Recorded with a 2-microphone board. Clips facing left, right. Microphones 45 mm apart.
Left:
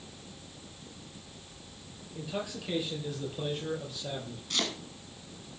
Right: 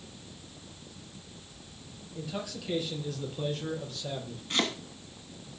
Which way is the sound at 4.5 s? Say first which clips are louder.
Right 3 dB; 25° right (ahead or behind).